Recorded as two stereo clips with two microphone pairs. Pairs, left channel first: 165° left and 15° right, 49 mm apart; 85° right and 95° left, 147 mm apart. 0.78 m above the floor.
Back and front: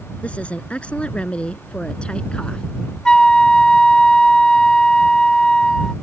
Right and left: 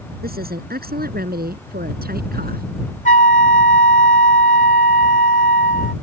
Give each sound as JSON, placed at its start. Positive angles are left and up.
{"t": 0.2, "sound": "a woman speaking", "azimuth_deg": 100}
{"t": 3.0, "sound": "a flute", "azimuth_deg": -120}